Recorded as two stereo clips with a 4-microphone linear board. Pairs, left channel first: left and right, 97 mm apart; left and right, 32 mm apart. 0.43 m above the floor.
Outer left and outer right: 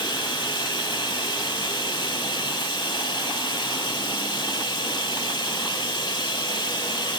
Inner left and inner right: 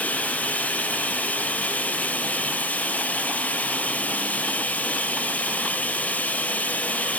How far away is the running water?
About 1.4 m.